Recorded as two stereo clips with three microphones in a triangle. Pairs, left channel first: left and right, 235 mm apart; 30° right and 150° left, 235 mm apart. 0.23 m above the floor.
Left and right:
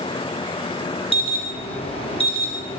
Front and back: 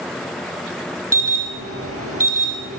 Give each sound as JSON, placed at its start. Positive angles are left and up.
{"t": 1.1, "sound": "an alarm", "azimuth_deg": 155, "distance_m": 4.0}